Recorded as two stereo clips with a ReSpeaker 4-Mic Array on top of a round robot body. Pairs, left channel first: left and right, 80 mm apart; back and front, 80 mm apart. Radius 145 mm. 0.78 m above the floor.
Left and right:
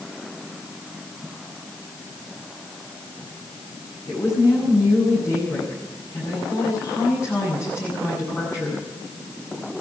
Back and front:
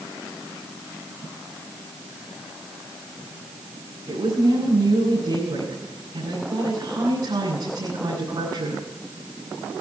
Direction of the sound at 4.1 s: 45° left.